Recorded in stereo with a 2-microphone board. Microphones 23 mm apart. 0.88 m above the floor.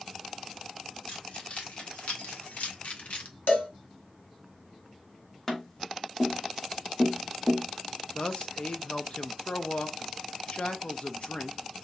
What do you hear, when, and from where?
1.1 s keys jangling: 50° left (ahead or behind), 1.6 m; by 3.3 s 80° left, 0.8 m
3.5 s a cowbell: 70° left (ahead or behind), 1.9 m
5.5 s tapping: 20° left (ahead or behind), 1.2 m
8.2 s a man speaking: 50° left (ahead or behind), 0.6 m